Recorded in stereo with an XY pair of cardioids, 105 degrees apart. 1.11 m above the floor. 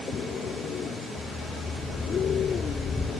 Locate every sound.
1.2 s a dog barking: 20° left, 4.5 m